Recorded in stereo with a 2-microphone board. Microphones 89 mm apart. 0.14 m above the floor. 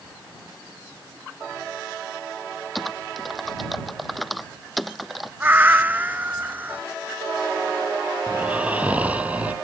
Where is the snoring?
15° right (ahead or behind).